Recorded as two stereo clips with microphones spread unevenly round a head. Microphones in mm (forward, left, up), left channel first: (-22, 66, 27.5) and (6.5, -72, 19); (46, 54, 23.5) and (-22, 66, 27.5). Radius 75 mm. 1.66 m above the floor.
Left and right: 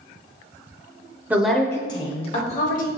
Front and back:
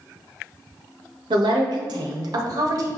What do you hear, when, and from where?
1.3 s a woman speaking: 155° right, 0.6 m; by 2.9 s 135° left, 1.3 m